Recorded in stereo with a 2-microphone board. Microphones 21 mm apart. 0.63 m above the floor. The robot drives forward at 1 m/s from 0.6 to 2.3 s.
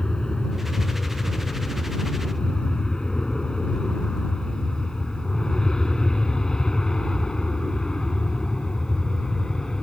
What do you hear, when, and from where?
0.0 s an aircraft: 40° left (ahead or behind); by 9.8 s 35° left (ahead or behind)